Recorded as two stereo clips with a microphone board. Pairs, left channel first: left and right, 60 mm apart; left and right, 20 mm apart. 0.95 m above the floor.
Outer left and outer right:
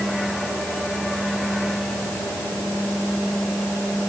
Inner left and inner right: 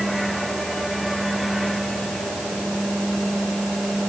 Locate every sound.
Only background noise.